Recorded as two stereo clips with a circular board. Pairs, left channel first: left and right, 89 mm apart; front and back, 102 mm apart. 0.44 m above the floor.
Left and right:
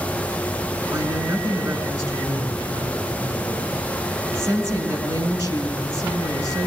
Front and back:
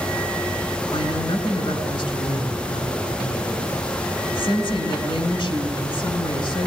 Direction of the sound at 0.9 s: 40° right.